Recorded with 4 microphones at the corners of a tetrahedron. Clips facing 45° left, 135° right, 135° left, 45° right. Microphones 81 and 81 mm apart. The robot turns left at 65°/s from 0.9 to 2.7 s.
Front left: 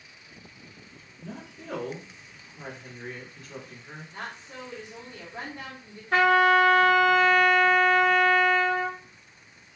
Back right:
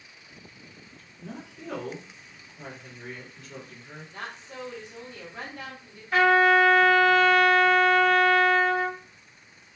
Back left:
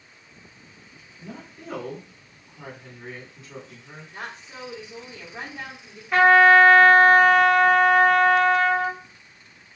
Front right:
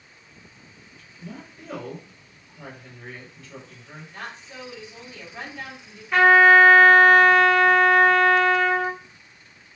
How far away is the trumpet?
About 1.3 m.